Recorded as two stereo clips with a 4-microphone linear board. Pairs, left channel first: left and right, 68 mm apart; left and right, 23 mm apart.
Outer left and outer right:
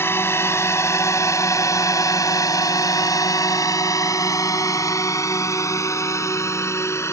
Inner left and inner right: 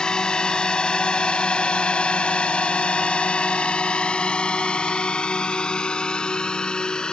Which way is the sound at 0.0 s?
35° left (ahead or behind).